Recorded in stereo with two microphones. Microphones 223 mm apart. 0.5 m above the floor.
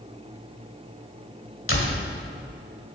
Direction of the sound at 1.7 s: 65° left (ahead or behind).